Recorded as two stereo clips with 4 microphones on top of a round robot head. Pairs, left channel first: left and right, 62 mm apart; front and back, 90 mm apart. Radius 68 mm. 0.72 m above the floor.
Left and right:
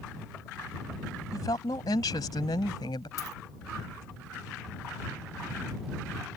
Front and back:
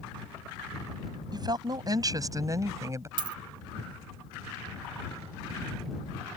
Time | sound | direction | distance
1.3 | a woman speaking | 140° left | ?
3.2 | a dropped coin | 150° left | ?